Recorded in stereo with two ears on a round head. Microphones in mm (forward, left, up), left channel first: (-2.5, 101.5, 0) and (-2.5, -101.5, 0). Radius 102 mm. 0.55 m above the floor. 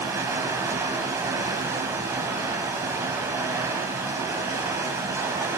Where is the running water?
15° right (ahead or behind), 1.4 m.